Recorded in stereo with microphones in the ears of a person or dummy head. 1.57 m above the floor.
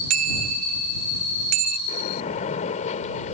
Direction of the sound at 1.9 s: 40° left (ahead or behind).